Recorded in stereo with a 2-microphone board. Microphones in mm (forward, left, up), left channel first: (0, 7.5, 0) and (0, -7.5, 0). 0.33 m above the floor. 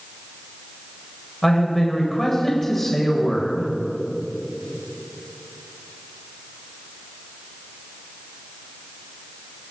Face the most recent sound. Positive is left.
turn(degrees=15)  # may be behind; listen again after turning